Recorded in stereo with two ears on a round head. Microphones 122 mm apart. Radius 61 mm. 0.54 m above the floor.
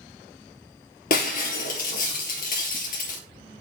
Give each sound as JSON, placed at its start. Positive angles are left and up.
{"t": 1.1, "sound": "breaking glass", "side_deg": 65, "distance_m": 3.0}